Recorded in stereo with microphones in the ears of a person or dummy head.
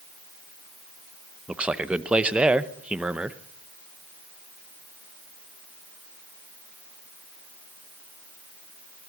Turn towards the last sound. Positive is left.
turn(degrees=-5)  # may be behind; listen again after turning